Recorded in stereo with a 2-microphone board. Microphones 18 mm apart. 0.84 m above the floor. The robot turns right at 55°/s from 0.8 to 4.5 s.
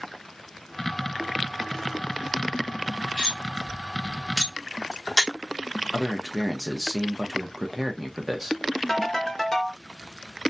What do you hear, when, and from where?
3.2 s cutlery clinking: 50° right (ahead or behind), 1.0 m; by 5.3 s 20° left (ahead or behind), 1.0 m
5.9 s a man speaking: 15° right (ahead or behind), 0.6 m
8.9 s a ringtone: 30° left (ahead or behind), 1.2 m